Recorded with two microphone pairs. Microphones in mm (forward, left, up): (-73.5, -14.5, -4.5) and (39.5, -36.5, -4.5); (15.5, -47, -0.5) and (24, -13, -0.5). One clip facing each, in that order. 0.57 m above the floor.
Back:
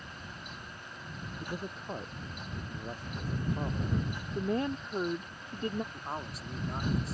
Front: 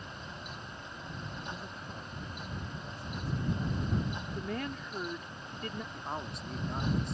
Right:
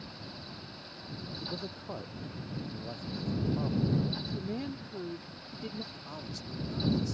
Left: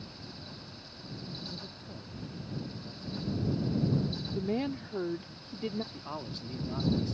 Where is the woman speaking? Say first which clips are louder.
Back 9 dB, left 5 dB; 120° left.